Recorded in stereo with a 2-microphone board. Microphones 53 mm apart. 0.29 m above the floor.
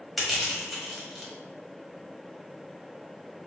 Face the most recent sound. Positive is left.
turn(degrees=0)  # may be behind; listen again after turning